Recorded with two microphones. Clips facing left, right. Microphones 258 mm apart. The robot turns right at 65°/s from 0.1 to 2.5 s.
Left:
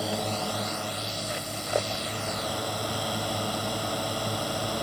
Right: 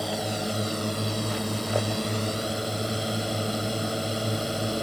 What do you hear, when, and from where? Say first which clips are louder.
0.0 s a drone: right 1 dB; straight behind; by 4.8 s 25° right